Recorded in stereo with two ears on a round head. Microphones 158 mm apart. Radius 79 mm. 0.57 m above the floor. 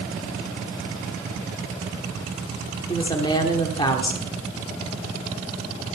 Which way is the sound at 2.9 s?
25° left (ahead or behind).